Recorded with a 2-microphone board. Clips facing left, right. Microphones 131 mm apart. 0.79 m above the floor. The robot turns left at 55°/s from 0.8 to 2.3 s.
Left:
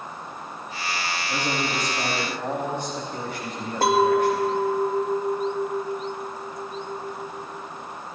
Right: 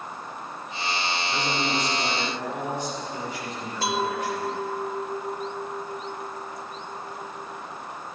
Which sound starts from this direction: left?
A clink, at 3.8 s.